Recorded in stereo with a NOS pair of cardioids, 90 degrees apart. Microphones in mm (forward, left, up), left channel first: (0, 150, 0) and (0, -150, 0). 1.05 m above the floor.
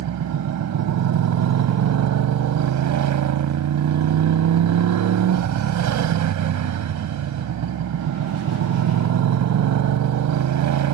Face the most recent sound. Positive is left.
turn(degrees=-65)